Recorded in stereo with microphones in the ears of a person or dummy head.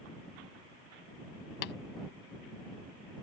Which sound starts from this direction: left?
Tapping, at 1.6 s.